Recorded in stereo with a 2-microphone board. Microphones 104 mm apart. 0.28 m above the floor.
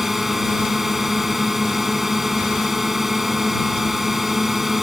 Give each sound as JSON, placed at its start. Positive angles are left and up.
{"t": 0.0, "sound": "a drone", "side_deg": 0}